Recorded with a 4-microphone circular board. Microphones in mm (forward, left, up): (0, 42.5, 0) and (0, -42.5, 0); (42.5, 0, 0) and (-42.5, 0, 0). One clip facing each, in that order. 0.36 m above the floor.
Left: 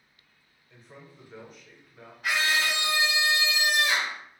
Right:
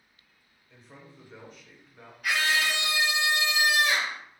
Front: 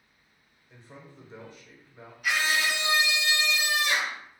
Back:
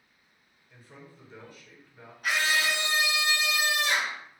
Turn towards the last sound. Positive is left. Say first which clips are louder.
# even, even
turn(degrees=145)